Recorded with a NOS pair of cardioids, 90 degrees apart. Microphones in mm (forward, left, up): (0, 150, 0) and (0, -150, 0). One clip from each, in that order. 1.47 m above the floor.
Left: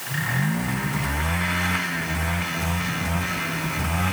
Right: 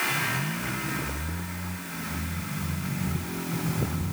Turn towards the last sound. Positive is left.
No sound to turn to.